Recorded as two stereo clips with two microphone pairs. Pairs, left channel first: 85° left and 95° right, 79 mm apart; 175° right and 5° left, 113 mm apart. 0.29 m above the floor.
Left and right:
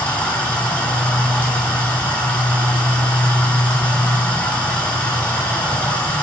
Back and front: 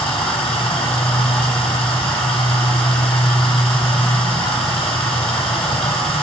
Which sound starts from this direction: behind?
Running water, at 0.0 s.